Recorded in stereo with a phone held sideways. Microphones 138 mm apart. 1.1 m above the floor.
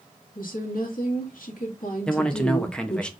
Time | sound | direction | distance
0.3 | a woman speaking | 80° left | 1.5 m
2.1 | a man speaking | 5° left (ahead or behind) | 0.5 m